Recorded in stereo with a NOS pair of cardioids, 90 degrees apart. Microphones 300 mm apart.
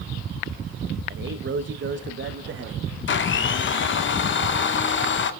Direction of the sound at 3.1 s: 40° left.